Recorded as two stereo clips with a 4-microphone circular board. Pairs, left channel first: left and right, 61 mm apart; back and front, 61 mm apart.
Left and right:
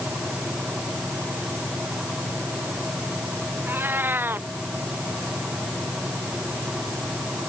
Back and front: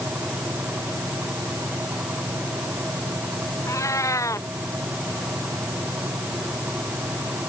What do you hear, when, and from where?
3.7 s a cat meowing: 145° right